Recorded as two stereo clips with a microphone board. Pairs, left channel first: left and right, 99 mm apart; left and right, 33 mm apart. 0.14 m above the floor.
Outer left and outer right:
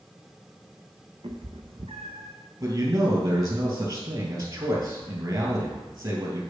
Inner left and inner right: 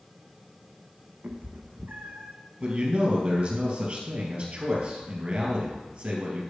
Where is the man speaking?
40° right (ahead or behind), 3.5 m.